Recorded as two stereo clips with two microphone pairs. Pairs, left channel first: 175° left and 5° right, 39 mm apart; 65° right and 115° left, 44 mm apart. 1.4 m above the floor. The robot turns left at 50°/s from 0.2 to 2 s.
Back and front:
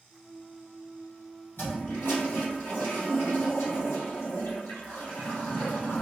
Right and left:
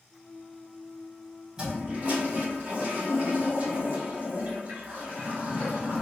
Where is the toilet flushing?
170° right, 1.6 m; by 6.0 s 170° left, 1.6 m.